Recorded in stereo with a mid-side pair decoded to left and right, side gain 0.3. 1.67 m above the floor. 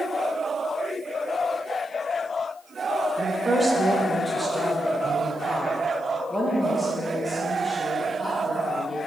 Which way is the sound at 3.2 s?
45° right.